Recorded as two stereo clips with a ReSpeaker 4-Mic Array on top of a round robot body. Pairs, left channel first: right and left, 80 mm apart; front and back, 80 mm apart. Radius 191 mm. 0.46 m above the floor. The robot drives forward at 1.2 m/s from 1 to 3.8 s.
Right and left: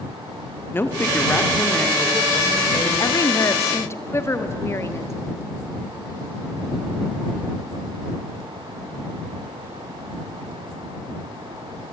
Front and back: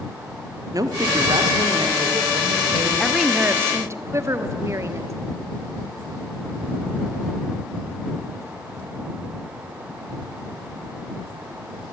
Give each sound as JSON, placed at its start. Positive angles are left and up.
{"t": 0.7, "sound": "a woman speaking", "azimuth_deg": -150, "distance_m": 1.5}
{"t": 3.0, "sound": "a woman speaking", "azimuth_deg": -85, "distance_m": 1.3}